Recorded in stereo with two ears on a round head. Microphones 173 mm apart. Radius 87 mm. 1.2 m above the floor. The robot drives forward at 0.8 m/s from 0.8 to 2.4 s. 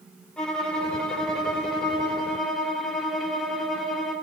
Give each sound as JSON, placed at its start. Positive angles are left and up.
{"t": 0.4, "sound": "a violin", "side_deg": 5, "distance_m": 1.1}